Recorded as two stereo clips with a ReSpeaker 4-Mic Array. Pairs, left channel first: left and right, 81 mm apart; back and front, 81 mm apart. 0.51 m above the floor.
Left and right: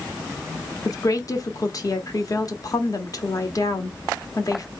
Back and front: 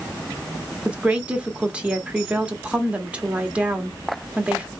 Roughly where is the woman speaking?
Left.